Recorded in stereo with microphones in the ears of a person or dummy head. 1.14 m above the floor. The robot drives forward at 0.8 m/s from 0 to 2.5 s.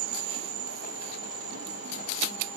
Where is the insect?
70° right (ahead or behind), 0.7 m; by 2.6 s 15° right (ahead or behind), 2.5 m.